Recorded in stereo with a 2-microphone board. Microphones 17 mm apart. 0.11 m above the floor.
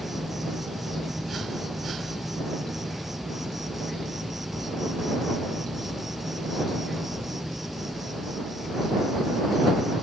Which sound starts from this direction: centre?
An insect, at 0.0 s.